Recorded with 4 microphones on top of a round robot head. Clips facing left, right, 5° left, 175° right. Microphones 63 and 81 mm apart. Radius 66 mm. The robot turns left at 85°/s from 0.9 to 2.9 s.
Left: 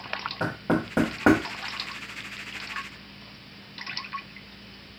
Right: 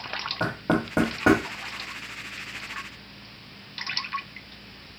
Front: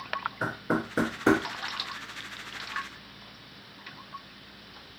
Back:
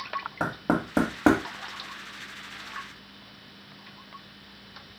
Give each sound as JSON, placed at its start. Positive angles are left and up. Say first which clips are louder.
{"t": 0.4, "sound": "knocking", "louder": "right 1 dB, back 4 dB", "azimuth_deg": -170, "distance_m": 1.3}